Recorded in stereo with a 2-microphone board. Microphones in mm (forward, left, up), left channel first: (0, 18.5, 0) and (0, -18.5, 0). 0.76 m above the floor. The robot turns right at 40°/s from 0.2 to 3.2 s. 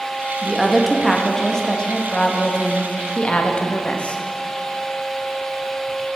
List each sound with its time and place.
0.4 s a woman speaking: 10° right, 0.9 m; by 4.2 s 105° left, 0.9 m